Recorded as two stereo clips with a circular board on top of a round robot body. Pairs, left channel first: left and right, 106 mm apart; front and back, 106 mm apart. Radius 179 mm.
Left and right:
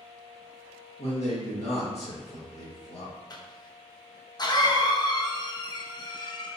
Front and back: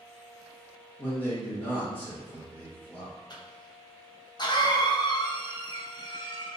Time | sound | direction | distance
1.0 | a man speaking | 75° left | 1.6 m
3.3 | a cough | 45° left | 0.9 m